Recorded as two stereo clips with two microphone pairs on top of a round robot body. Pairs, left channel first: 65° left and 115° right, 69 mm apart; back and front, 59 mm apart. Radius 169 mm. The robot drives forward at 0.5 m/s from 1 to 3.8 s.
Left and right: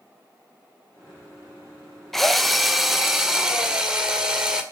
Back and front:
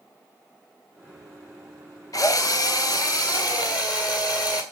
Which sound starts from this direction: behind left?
A drill, at 2.1 s.